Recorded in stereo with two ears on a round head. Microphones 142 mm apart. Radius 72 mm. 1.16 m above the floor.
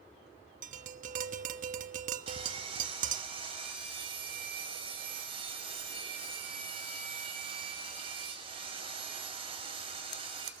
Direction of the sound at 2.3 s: 30° right (ahead or behind).